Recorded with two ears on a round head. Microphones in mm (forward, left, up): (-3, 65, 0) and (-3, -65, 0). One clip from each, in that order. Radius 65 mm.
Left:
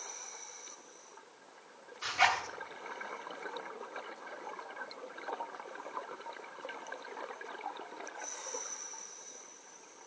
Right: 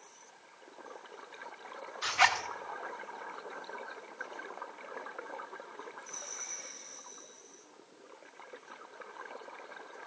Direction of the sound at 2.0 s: 20° right (ahead or behind).